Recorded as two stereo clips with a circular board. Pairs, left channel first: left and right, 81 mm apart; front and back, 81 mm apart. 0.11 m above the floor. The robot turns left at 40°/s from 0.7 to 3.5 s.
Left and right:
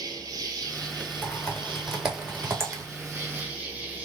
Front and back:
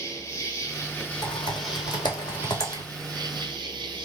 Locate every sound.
0.0 s an insect: 50° right, 0.9 m; by 4.0 s 160° right, 0.9 m
1.2 s typing on a keyboard: 25° left, 1.0 m; by 2.8 s 40° right, 1.0 m